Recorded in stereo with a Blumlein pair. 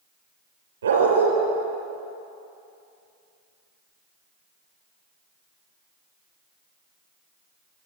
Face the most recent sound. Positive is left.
turn(degrees=-65)